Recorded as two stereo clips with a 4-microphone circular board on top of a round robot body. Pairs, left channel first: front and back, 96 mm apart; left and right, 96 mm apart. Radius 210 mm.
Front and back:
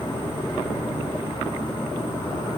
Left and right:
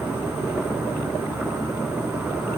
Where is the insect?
30° right, 3 m.